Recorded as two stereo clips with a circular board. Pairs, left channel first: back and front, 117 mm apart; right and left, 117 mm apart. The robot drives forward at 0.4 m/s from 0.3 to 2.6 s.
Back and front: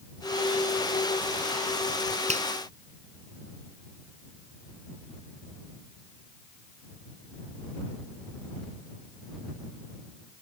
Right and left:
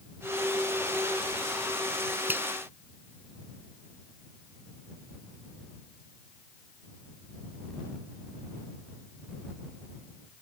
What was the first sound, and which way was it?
A finger snap, 15° left.